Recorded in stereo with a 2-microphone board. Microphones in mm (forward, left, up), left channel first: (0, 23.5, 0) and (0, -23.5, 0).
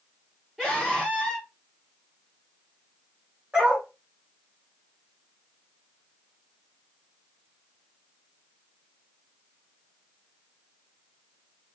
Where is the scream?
10° right (ahead or behind), 2.5 m.